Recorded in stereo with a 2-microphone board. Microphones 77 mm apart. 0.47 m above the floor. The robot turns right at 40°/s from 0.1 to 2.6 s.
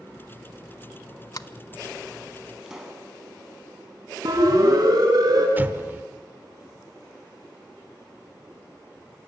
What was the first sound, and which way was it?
A sliding door, 50° left (ahead or behind).